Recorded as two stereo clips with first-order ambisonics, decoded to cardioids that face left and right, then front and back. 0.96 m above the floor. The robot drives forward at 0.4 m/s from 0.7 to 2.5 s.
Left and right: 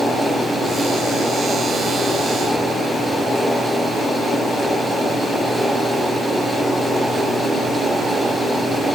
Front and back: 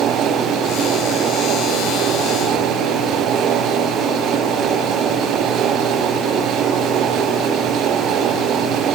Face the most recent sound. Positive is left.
No sound to turn to.